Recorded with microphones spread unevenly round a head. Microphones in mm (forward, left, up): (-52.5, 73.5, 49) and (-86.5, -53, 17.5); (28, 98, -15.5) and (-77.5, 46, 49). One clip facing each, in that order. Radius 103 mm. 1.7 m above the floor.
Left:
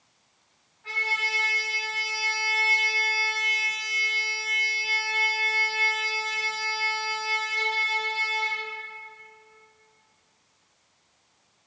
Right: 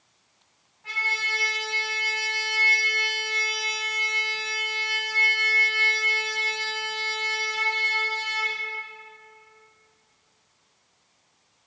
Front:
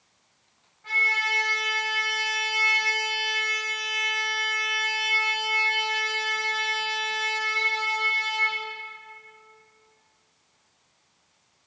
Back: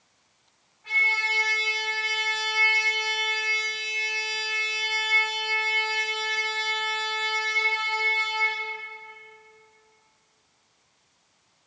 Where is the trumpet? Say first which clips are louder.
Left 1 dB, front 1 dB; 25° right, 2 m.